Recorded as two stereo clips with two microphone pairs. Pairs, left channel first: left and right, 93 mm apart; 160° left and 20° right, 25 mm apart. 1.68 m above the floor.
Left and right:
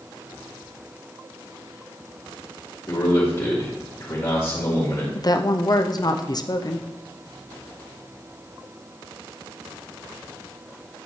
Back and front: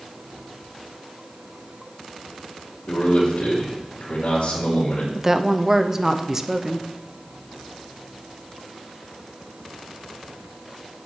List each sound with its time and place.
2.9 s a man speaking: 145° left, 2.5 m
5.2 s a woman speaking: 55° left, 0.5 m